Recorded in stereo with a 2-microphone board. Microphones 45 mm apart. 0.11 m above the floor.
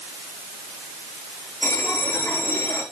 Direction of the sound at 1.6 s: 55° left (ahead or behind).